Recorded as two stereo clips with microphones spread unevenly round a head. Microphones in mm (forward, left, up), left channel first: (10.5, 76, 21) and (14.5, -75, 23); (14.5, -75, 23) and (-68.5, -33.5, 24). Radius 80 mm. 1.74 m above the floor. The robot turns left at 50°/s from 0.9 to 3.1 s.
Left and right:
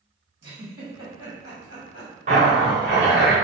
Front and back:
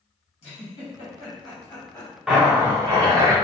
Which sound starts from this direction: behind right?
A zipper, at 2.3 s.